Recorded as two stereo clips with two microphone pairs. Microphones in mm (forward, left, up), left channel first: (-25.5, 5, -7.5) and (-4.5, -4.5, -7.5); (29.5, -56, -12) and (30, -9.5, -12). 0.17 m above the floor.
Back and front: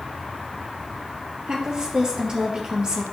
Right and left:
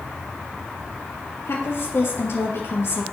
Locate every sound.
1.5 s a woman speaking: 80° right, 2.5 m